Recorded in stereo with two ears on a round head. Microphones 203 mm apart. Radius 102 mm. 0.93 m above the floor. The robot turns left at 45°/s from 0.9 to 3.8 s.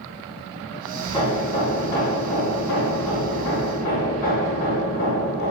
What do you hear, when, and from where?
1.0 s hammering: 165° left, 4 m; by 5.5 s 40° left, 4 m